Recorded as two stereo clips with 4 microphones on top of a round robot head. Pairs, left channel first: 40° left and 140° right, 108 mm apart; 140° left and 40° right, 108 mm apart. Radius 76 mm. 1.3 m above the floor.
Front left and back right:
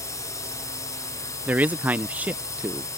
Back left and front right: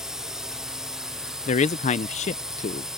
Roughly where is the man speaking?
Behind left.